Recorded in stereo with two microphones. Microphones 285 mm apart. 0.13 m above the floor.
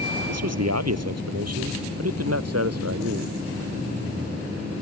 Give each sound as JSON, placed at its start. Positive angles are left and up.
{"t": 0.3, "sound": "a man speaking", "side_deg": -65}